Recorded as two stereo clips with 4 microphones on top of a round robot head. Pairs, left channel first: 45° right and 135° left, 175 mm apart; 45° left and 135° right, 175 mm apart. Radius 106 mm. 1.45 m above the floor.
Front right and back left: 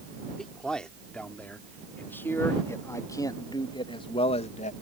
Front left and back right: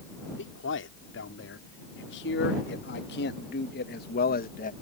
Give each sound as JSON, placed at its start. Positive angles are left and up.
{"t": 0.4, "sound": "a man speaking", "azimuth_deg": 40}